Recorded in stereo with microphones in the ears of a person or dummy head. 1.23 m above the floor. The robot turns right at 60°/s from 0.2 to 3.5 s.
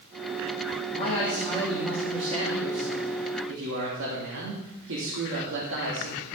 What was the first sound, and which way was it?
A man speaking, 135° left.